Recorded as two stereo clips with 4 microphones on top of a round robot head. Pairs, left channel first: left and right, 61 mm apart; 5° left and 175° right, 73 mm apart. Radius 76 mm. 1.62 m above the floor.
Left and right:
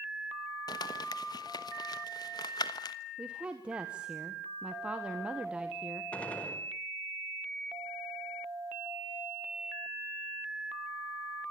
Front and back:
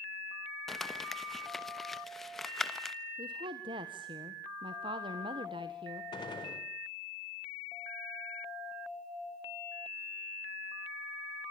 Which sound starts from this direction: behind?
A woman speaking, at 3.2 s.